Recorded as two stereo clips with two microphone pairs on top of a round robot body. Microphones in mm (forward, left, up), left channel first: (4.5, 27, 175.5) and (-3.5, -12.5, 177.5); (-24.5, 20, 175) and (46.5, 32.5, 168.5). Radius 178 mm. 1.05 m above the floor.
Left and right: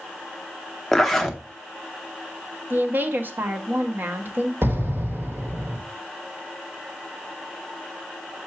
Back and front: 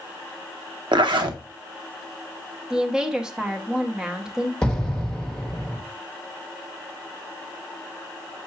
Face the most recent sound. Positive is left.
turn(degrees=-90)